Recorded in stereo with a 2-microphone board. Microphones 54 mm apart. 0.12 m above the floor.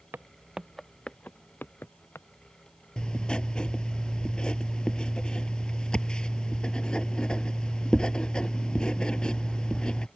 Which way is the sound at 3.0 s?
15° left (ahead or behind).